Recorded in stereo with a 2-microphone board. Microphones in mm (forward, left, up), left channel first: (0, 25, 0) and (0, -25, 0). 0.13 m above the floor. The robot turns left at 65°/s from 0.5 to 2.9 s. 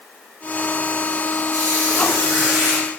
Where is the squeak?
95° right, 1.5 m; by 2.9 s 175° left, 1.5 m.